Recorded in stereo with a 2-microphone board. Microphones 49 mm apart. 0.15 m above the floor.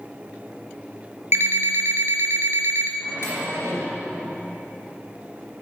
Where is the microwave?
55° left (ahead or behind), 2.5 m.